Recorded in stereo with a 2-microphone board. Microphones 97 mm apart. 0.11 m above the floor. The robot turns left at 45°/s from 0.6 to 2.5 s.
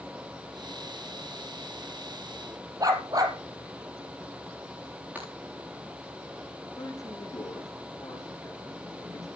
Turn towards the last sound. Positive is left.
turn(degrees=35)  # may be behind; listen again after turning